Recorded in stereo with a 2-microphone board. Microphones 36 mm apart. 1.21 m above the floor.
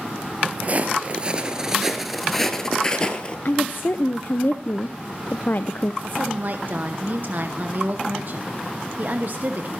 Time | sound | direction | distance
0.6 | footsteps | 45° right (ahead or behind) | 1.6 m
3.5 | a woman speaking | 60° left (ahead or behind) | 0.5 m
6.0 | a woman speaking | 50° right (ahead or behind) | 0.9 m